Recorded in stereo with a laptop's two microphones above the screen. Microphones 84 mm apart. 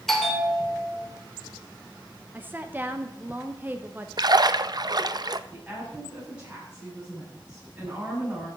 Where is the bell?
5° left (ahead or behind), 2.5 m.